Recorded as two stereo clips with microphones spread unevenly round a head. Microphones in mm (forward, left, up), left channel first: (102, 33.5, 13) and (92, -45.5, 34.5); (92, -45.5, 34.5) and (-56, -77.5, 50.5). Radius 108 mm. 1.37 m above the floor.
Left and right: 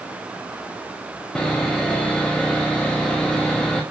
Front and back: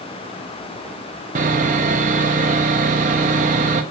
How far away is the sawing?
About 0.8 m.